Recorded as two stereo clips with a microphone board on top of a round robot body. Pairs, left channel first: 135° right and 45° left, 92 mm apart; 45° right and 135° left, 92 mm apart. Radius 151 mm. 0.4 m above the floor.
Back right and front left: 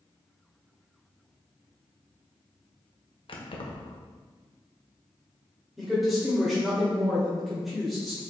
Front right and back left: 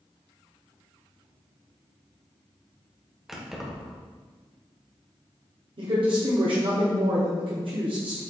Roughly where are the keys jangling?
Behind right.